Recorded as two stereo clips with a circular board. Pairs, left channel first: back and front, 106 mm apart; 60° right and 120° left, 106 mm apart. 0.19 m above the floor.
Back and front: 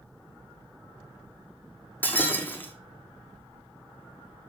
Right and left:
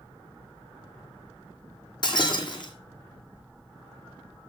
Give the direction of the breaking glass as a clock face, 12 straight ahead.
4 o'clock.